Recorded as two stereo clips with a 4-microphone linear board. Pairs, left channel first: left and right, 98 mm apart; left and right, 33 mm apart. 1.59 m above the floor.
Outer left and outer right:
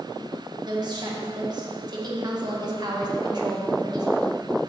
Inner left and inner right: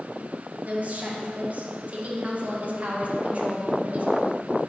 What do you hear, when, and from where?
0.7 s a woman speaking: 45° right (ahead or behind), 2.0 m